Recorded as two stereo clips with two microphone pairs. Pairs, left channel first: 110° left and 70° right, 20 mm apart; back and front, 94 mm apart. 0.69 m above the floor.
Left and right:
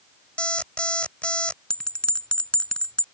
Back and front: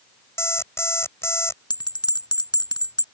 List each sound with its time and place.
0.4 s an alarm clock: 120° left
1.7 s a bell: 145° left